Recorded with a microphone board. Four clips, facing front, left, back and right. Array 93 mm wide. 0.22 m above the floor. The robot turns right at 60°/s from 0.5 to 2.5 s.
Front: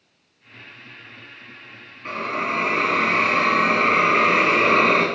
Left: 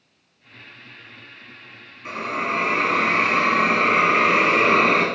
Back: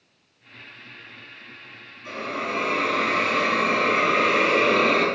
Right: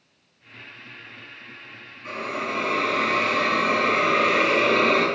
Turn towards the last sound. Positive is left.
turn(degrees=45)